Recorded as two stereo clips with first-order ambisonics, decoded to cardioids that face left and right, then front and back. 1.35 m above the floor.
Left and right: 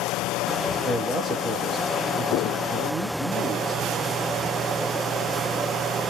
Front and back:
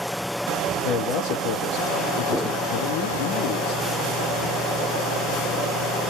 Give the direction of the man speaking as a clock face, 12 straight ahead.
12 o'clock.